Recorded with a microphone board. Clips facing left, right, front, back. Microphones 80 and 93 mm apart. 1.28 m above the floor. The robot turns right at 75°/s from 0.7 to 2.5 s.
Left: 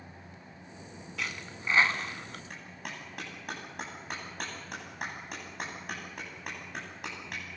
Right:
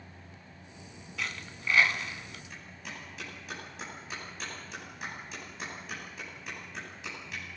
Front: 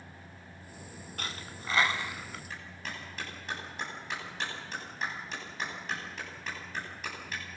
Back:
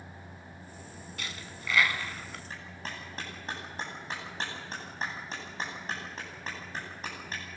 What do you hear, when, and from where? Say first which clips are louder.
1.2 s a dropped coin: even, front 2 dB; straight ahead, 1.6 m; by 2.4 s 90° left, 1.6 m
2.5 s a clap: left 2 dB, back 1 dB; 125° left, 9.5 m